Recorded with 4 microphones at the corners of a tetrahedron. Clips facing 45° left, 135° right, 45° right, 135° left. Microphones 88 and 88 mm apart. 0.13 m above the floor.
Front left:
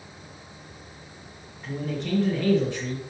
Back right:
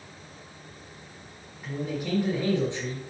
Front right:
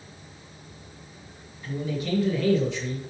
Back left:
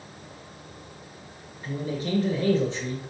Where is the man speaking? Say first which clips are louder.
Front left 1 dB, even; 140° left, 1.8 m; by 3.0 s 175° left, 2.0 m.